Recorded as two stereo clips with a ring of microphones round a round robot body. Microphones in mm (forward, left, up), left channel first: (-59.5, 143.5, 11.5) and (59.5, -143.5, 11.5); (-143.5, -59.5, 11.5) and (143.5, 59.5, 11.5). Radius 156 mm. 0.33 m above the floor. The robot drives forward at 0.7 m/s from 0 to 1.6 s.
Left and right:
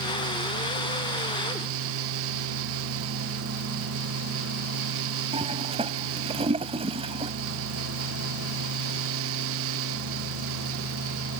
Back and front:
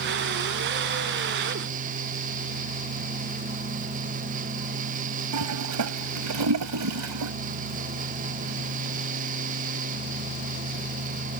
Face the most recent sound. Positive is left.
turn(degrees=0)